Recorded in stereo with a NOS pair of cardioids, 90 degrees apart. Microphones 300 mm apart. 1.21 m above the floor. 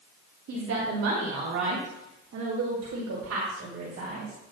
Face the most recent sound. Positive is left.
turn(degrees=-55)